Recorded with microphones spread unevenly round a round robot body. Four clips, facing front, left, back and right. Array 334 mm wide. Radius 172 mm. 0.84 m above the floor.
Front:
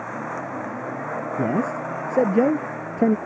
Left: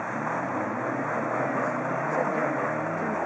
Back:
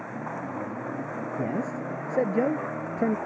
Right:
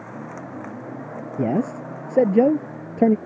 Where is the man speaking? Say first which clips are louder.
Right 4 dB, front 7 dB; 55° right.